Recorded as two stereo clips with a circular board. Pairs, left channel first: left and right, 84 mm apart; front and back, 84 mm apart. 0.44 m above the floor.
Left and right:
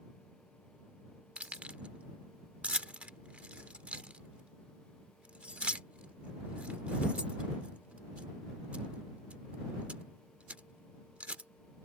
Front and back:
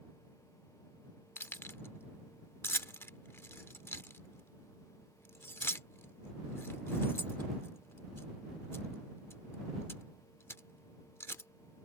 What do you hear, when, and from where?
1.4 s keys jangling: 30° right